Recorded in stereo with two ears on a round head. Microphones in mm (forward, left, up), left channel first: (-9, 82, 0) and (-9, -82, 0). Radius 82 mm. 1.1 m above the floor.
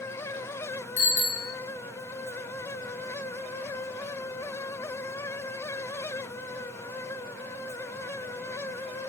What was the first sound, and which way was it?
A bicycle bell, 70° left (ahead or behind).